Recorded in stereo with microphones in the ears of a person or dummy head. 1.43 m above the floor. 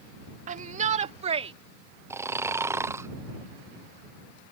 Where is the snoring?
15° right (ahead or behind).